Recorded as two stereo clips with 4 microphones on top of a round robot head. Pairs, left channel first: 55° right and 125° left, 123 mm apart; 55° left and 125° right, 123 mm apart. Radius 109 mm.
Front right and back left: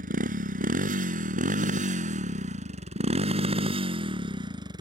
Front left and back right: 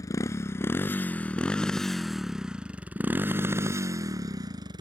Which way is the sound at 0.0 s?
125° left.